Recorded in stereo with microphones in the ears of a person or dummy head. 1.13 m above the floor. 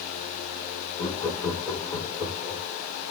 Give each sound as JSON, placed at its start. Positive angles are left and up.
{"t": 1.0, "sound": "laughter", "side_deg": 20, "distance_m": 4.5}